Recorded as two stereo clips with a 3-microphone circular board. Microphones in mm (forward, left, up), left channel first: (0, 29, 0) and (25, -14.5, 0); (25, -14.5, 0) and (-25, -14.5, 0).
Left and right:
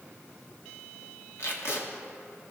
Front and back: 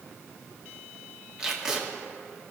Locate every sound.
1.4 s tape being pulled: 105° left, 1.2 m